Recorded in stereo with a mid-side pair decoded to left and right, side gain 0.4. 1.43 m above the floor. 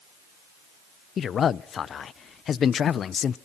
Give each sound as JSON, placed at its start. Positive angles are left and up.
{"t": 1.2, "sound": "a man speaking", "azimuth_deg": 60, "distance_m": 0.5}